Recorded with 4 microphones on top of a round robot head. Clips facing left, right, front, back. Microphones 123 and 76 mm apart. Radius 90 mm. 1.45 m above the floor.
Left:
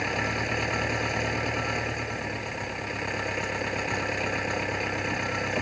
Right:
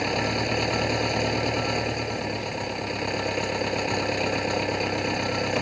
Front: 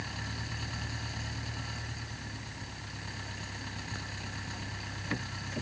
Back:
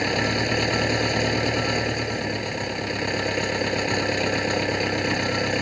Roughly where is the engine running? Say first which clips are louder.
Right 4 dB, back 18 dB; behind.